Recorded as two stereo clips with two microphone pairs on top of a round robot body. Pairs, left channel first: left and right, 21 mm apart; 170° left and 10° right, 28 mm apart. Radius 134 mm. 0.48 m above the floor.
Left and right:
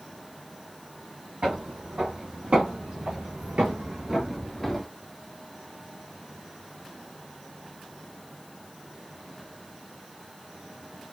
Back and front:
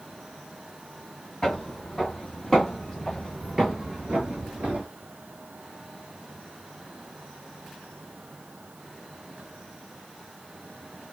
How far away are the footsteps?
About 1.7 m.